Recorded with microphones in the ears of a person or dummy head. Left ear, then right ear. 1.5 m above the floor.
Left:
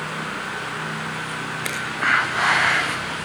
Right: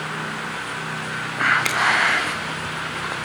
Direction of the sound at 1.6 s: 20° right (ahead or behind).